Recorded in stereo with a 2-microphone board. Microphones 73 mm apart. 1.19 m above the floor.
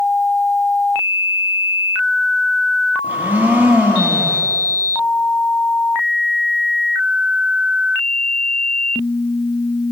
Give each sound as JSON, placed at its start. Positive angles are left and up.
{"t": 3.0, "sound": "a blender", "side_deg": -20, "distance_m": 1.0}